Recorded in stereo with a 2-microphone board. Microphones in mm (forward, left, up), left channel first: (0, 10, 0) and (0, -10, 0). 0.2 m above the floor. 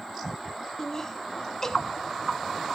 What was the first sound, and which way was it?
Laughter, 25° left (ahead or behind).